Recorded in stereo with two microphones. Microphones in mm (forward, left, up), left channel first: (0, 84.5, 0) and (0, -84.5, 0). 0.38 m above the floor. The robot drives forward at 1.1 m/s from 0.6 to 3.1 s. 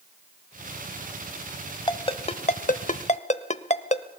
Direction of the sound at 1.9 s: 30° left (ahead or behind).